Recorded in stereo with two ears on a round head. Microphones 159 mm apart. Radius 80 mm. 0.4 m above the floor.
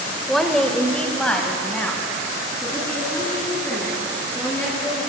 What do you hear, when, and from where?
0.3 s a woman speaking: centre (ahead or behind), 1.5 m; by 5.0 s 10° left (ahead or behind), 7.5 m